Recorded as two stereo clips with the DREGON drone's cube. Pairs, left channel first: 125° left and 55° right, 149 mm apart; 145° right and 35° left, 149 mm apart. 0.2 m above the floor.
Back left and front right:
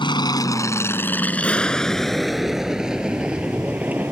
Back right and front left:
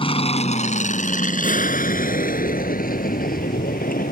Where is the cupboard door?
I don't hear a cupboard door.